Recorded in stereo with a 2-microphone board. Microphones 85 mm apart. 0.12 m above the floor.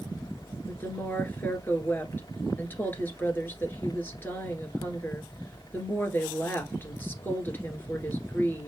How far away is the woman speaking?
About 1.8 m.